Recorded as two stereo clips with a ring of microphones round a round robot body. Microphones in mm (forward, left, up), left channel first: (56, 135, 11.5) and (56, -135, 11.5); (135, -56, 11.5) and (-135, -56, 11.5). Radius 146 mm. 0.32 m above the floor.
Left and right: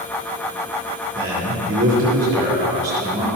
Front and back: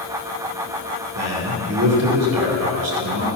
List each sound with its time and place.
1.1 s a man speaking: 150° right, 4.5 m